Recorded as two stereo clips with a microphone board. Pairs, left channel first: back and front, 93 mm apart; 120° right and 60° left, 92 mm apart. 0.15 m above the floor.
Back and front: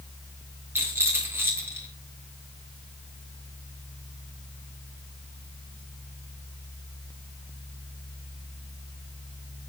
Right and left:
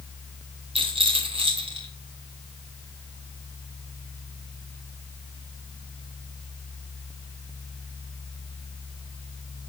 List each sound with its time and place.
0.8 s a rattle: 65° left, 3.5 m